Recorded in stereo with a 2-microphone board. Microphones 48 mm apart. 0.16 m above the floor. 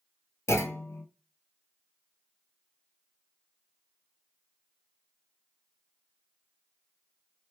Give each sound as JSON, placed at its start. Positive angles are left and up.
{"t": 0.5, "sound": "a clunk", "side_deg": 70, "distance_m": 0.7}